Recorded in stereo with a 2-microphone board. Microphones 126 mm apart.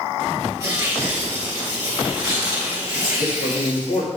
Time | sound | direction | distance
0.6 | tearing paper | 25° right (ahead or behind) | 3 m
3.2 | a man speaking | 55° left (ahead or behind) | 2.5 m